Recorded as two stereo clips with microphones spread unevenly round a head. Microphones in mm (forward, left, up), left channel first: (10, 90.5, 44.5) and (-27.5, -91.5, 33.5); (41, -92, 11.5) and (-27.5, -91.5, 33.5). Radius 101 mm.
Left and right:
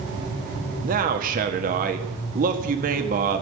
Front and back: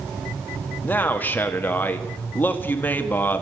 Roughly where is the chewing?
No chewing in this recording.